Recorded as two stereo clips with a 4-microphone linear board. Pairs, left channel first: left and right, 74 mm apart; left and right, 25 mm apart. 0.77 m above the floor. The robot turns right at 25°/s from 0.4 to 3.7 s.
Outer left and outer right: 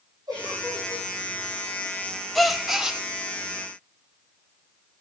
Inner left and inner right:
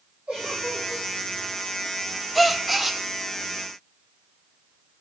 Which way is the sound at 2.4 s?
Centre (ahead or behind).